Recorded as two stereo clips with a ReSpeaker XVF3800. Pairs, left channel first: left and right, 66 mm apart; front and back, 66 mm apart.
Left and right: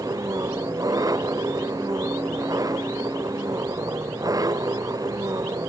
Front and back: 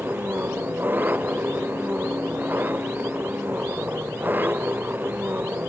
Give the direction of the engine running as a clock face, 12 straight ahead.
4 o'clock.